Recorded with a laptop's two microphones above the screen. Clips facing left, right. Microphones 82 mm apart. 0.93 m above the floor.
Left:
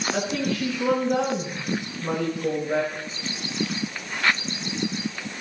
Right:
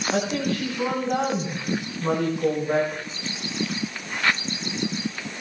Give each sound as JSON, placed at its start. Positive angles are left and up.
{"t": 0.1, "sound": "a woman speaking", "side_deg": -65, "distance_m": 7.0}